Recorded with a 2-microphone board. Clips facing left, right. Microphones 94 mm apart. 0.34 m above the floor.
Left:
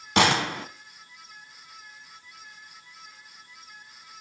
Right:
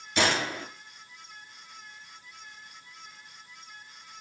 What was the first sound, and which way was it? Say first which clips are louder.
A gunshot: left 5 dB; 75° left (ahead or behind).